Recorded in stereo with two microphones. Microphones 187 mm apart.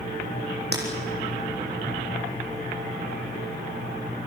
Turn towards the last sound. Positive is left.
turn(degrees=-65)  # may be behind; listen again after turning